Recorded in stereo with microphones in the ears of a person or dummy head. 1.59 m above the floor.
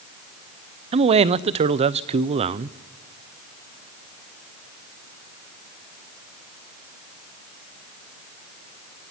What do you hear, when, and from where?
0.9 s a man speaking: 30° right (ahead or behind), 0.5 m